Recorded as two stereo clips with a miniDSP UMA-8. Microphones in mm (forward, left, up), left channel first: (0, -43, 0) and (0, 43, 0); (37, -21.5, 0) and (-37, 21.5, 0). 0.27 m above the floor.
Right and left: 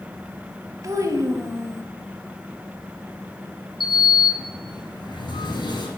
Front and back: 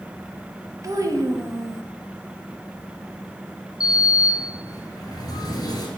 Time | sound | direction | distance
0.8 | a child speaking | 125° left | 0.8 m
3.8 | a sliding door | 65° right | 1.5 m